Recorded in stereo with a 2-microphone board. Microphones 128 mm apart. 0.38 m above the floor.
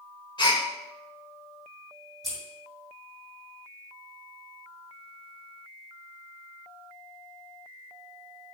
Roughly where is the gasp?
Left.